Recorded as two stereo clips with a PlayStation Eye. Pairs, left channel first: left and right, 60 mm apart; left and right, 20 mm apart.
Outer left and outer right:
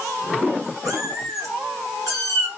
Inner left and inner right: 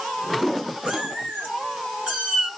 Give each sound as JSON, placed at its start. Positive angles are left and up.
{"t": 0.8, "sound": "a cat meowing", "side_deg": -80, "distance_m": 5.0}